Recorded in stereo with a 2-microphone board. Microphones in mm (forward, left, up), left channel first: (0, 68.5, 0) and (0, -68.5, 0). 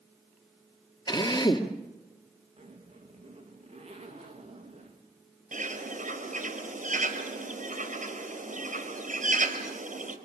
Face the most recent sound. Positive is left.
turn(degrees=-60)  # may be behind; listen again after turning